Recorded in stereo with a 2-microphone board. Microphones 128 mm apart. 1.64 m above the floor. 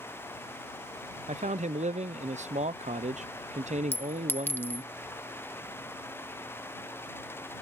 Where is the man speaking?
65° right (ahead or behind).